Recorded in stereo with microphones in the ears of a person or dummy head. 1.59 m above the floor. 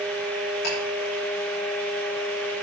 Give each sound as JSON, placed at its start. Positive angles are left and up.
{"t": 0.6, "sound": "ticking", "side_deg": 55, "distance_m": 5.5}